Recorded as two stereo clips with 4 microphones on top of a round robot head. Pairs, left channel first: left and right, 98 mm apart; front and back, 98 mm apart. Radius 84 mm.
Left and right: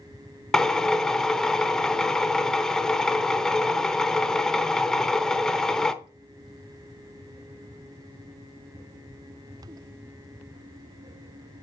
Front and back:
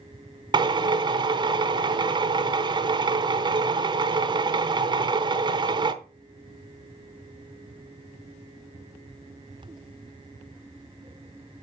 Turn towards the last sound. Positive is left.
turn(degrees=175)